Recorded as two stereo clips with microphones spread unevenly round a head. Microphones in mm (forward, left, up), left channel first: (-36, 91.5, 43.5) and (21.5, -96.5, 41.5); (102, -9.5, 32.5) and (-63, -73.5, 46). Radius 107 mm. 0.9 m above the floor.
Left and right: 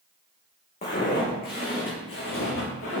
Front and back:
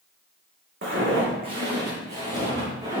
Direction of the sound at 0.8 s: 165° left.